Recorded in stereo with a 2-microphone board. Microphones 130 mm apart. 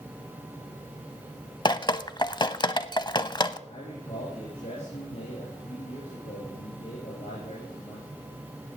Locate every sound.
1.6 s dripping: 35° left (ahead or behind), 0.5 m
3.7 s a man speaking: 65° left (ahead or behind), 5 m